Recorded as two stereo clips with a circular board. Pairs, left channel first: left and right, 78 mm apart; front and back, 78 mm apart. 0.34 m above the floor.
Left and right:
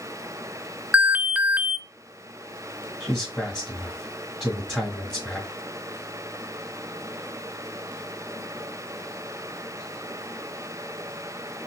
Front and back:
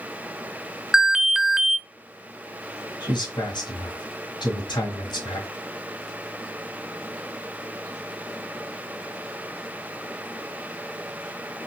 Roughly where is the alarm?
Right.